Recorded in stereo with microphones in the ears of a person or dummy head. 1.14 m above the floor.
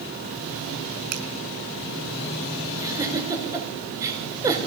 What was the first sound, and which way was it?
A finger snap, 55° right (ahead or behind).